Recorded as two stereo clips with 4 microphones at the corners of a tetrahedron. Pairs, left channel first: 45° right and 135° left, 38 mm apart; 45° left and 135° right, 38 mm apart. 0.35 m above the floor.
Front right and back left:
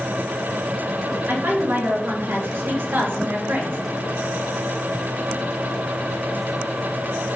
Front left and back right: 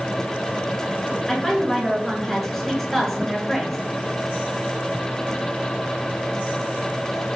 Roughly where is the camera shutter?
No camera shutter in this recording.